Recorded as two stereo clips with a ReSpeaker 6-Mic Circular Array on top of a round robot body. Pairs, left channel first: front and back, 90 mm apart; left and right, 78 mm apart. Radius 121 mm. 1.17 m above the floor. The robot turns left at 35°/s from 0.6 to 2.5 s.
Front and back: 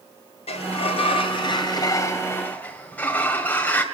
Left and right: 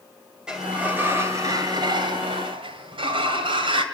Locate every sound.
0.5 s a sliding door: 10° right, 2 m; by 3.8 s 75° right, 2 m